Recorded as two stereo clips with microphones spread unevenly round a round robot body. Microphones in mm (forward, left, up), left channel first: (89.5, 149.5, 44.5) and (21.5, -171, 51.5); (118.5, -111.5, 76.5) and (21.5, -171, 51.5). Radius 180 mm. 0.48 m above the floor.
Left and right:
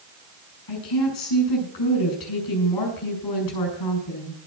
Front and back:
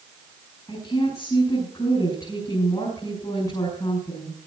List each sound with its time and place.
0.7 s a woman speaking: 105° left, 6.5 m